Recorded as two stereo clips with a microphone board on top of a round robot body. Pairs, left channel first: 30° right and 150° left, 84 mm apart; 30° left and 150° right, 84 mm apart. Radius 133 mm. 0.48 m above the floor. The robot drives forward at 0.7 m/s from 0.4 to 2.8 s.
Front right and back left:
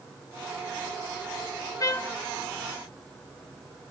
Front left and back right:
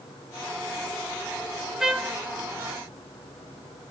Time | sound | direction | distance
1.8 | a trumpet | 65° right | 1.2 m